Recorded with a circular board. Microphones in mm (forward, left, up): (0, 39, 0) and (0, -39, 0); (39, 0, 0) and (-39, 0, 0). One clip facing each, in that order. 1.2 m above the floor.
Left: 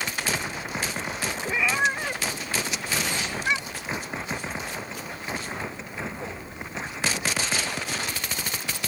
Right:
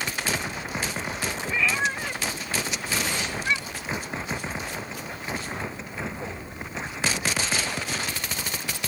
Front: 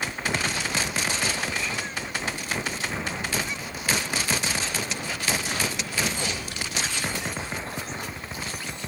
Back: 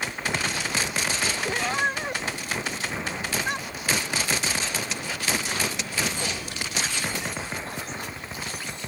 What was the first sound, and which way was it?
A cat meowing, 160° left.